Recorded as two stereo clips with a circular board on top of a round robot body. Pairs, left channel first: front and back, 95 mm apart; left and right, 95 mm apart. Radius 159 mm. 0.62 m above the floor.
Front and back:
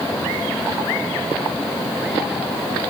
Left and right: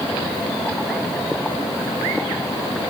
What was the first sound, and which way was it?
Only background noise.